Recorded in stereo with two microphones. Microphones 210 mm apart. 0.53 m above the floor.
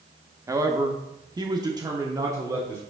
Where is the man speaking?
15° right (ahead or behind), 0.8 m.